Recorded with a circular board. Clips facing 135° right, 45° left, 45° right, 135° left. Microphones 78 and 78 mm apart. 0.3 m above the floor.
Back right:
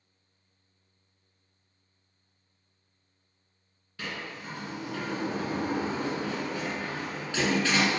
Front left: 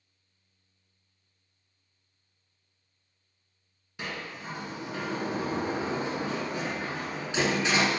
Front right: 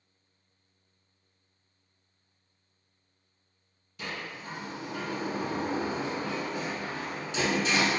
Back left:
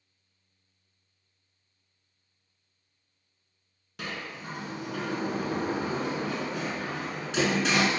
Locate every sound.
4.0 s a sliding door: 115° left, 0.9 m